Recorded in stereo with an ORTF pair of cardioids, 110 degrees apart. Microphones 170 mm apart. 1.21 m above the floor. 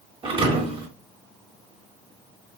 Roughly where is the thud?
Ahead right.